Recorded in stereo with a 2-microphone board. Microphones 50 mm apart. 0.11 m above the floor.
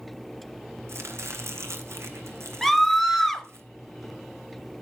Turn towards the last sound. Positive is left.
turn(degrees=0)  # may be behind; listen again after turning